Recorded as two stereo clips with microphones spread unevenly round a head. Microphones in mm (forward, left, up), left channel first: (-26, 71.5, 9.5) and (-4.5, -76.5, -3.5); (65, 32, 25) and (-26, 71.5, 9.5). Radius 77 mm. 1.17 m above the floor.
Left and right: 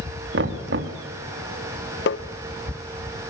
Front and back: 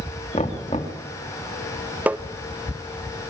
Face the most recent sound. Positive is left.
turn(degrees=85)